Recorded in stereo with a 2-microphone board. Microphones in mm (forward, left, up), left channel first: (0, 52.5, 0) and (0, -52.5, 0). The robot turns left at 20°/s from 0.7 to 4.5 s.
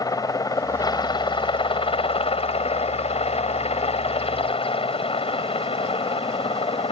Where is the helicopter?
140° left; by 6.9 s 65° left.